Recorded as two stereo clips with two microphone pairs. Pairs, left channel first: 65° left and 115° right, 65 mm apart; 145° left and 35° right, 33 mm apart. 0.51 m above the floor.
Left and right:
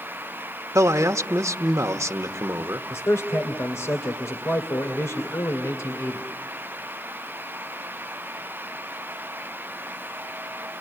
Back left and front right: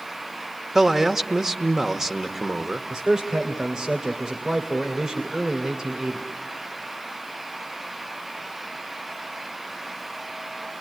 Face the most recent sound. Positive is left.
turn(degrees=35)